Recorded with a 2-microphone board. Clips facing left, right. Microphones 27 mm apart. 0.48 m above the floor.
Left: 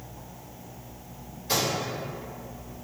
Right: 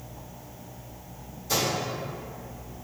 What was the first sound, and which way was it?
A microwave, 50° left (ahead or behind).